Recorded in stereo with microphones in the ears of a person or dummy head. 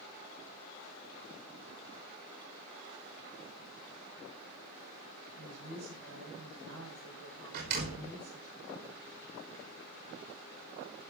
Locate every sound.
5.4 s a woman speaking: 85° right, 7.5 m
7.5 s a door slam: 55° right (ahead or behind), 5.5 m